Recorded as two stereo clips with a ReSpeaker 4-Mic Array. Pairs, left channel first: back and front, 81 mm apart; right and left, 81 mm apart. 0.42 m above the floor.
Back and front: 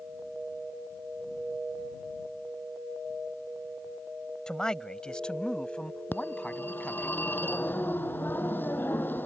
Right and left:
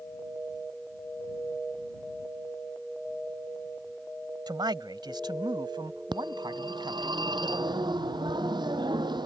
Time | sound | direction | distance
4.5 | a man speaking | 100° left | ?
6.1 | a phone ringing | 115° left | ?